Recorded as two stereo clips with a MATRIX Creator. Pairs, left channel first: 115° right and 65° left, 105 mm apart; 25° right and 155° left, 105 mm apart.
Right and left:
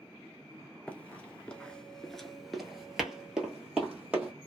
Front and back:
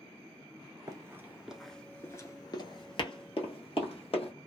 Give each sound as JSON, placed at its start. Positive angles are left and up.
{"t": 0.9, "sound": "running footsteps", "azimuth_deg": 180, "distance_m": 0.8}